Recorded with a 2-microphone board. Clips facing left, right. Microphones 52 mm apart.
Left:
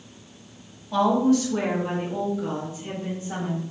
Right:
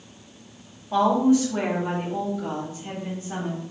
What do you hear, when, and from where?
0.9 s a woman speaking: 30° right (ahead or behind), 0.9 m; by 3.6 s 25° left (ahead or behind), 1.3 m